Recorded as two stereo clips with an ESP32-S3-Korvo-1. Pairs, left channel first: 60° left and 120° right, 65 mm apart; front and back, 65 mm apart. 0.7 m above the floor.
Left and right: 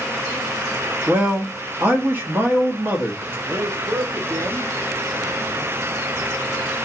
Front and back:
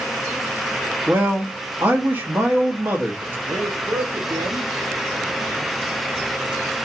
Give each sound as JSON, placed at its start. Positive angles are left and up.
{"t": 1.1, "sound": "a man speaking", "azimuth_deg": -150, "distance_m": 1.3}
{"t": 3.5, "sound": "a man speaking", "azimuth_deg": -155, "distance_m": 0.9}